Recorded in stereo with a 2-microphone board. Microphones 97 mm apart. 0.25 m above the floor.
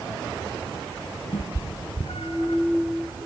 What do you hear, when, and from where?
1.3 s a cat meowing: 80° left, 1.8 m; by 2.6 s 65° left (ahead or behind), 1.7 m